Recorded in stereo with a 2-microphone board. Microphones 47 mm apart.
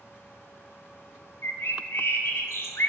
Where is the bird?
65° left (ahead or behind), 1.2 m.